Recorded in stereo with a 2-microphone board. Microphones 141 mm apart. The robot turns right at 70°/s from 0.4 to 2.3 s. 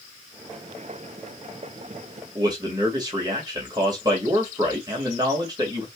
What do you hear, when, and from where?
2.4 s a man speaking: 30° right (ahead or behind), 2 m